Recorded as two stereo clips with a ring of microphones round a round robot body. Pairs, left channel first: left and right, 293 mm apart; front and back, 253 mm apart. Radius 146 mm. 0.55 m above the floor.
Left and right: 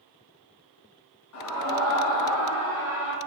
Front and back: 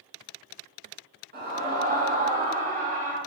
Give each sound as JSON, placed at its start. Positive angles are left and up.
{"t": 1.3, "sound": "a scream", "azimuth_deg": 125, "distance_m": 5.5}